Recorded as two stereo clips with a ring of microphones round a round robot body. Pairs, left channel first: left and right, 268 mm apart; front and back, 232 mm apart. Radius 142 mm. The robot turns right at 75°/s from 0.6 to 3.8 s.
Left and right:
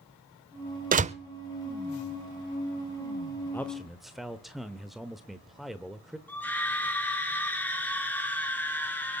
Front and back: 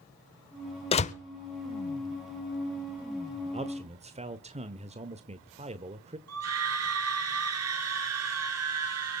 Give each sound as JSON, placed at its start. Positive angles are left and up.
{"t": 0.9, "sound": "a door slam", "azimuth_deg": -55, "distance_m": 0.8}
{"t": 3.5, "sound": "a man speaking", "azimuth_deg": 160, "distance_m": 1.0}
{"t": 6.3, "sound": "a scream", "azimuth_deg": 175, "distance_m": 5.5}